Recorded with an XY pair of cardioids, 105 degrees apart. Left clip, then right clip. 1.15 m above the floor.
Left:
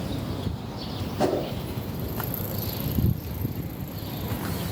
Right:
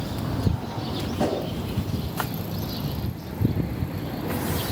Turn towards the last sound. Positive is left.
turn(degrees=10)